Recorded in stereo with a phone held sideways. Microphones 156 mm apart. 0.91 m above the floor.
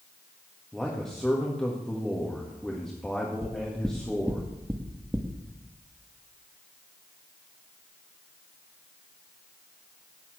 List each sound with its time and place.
0.7 s a man speaking: 5° left (ahead or behind), 1.5 m
3.4 s knocking: 15° right (ahead or behind), 0.9 m